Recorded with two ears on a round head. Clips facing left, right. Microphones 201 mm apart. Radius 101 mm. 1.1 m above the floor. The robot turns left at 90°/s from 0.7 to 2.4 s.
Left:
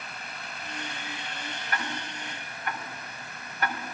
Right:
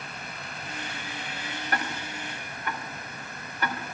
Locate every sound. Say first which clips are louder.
1.7 s ticking: right 2 dB; 35° right (ahead or behind), 4.5 m; by 3.8 s 80° right, 4.5 m